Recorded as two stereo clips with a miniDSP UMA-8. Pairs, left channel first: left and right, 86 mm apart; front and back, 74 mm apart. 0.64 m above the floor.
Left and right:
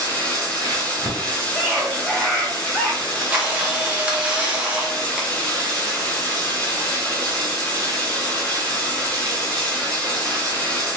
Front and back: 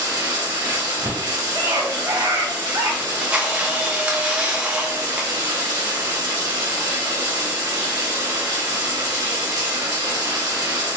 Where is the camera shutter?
140° right, 0.9 m.